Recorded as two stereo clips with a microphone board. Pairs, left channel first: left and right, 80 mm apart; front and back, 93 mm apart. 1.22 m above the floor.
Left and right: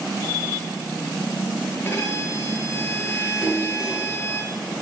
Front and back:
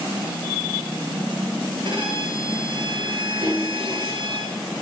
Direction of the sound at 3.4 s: 170° left.